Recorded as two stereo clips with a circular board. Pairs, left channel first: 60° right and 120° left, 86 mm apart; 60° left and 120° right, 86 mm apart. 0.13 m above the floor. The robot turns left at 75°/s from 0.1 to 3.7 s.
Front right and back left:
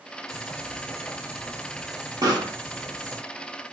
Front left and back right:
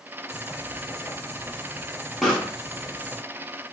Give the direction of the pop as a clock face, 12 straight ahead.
7 o'clock.